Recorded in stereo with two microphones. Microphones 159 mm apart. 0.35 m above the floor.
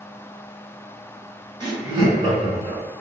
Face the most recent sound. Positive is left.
turn(degrees=-25)  # may be behind; listen again after turning